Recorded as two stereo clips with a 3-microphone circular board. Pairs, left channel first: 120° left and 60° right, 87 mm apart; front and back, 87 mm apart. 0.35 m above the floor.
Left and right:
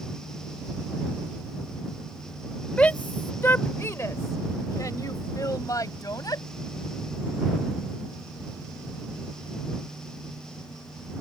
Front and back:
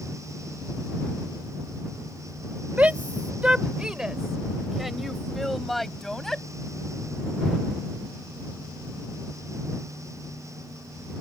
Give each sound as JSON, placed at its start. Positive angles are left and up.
{"t": 2.8, "sound": "a shout", "azimuth_deg": 160}